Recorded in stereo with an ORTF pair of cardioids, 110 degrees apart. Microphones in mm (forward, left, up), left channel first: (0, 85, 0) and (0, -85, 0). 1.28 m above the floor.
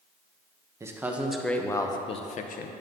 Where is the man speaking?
15° right, 1.1 m; by 2.7 s 60° left, 0.9 m.